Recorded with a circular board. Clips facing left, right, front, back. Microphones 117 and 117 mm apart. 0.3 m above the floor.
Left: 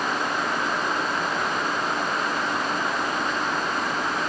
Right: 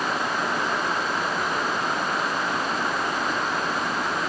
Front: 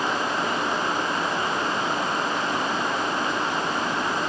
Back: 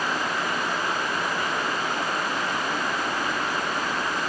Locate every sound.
Only background noise.